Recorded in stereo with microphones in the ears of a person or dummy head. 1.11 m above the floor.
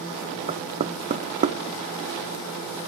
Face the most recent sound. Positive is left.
turn(degrees=-35)  # may be behind; listen again after turning